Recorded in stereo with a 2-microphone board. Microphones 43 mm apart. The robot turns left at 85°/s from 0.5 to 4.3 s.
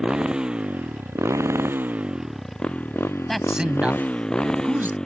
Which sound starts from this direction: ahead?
A motorcycle, at 0.0 s.